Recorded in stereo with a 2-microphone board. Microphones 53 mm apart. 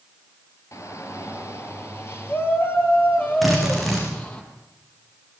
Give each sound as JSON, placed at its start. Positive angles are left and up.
{"t": 0.7, "sound": "a shout", "side_deg": 60, "distance_m": 5.0}
{"t": 3.4, "sound": "a drill", "side_deg": 0, "distance_m": 7.0}